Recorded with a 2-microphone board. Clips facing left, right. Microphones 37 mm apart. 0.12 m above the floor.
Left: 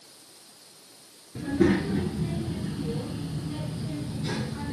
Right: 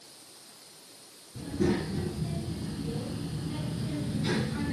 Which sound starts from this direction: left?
A child speaking, at 1.4 s.